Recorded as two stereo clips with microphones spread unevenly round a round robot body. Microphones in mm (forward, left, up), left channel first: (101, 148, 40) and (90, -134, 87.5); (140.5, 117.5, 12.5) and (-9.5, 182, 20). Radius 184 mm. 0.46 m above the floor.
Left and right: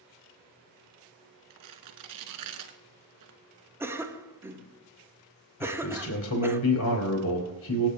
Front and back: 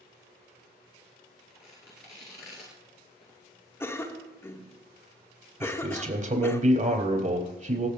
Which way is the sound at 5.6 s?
120° left.